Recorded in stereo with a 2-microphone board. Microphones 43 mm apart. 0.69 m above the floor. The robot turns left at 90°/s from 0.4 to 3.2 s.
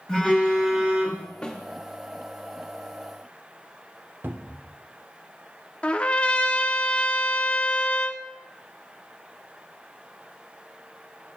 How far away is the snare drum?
About 1.3 m.